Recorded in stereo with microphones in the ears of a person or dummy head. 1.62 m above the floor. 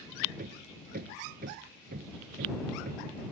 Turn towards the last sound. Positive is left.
turn(degrees=-50)  # may be behind; listen again after turning